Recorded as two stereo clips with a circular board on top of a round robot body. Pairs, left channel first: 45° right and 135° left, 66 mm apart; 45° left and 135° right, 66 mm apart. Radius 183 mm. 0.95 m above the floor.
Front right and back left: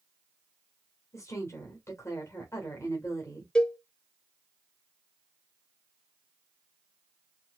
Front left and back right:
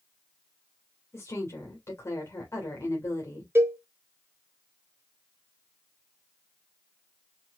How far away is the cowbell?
About 1.0 m.